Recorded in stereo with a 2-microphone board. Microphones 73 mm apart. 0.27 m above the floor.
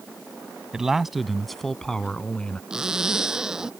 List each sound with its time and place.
0.7 s a man speaking: 10° right (ahead or behind); by 2.6 s 15° left (ahead or behind)
2.7 s a zipper: 10° right (ahead or behind)